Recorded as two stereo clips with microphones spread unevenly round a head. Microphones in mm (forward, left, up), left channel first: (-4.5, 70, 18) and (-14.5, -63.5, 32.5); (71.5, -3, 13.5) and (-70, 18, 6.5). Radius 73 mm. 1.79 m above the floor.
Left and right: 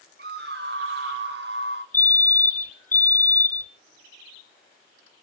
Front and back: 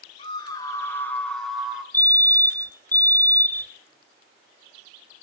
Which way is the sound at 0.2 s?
65° right.